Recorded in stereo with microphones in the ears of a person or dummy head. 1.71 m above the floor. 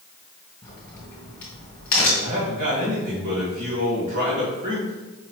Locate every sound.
0.6 s a crack: 15° left (ahead or behind), 1.8 m
2.2 s a man speaking: 50° right (ahead or behind), 1.6 m